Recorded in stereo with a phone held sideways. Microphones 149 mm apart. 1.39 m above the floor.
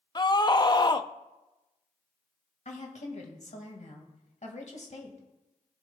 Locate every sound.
0.1 s a scream: 30° left (ahead or behind), 0.5 m
2.6 s a woman speaking: 55° left (ahead or behind), 1.9 m